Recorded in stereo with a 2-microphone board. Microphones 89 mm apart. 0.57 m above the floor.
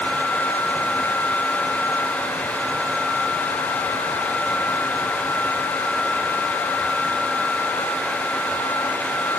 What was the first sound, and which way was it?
Only background noise.